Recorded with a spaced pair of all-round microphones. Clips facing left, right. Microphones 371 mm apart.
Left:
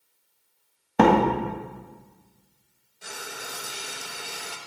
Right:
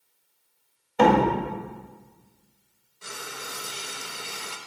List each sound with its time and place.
1.0 s a door slam: 65° left (ahead or behind), 2.0 m
3.0 s frying: 10° right (ahead or behind), 1.0 m